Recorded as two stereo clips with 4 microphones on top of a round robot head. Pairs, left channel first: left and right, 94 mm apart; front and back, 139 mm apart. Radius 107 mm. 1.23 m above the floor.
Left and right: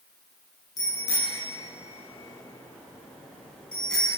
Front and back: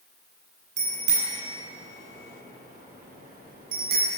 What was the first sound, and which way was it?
A bicycle bell, 150° left.